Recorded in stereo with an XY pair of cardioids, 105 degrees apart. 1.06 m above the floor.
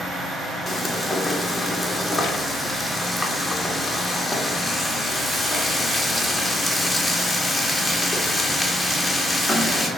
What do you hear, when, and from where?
0.7 s frying: 5° left, 2.5 m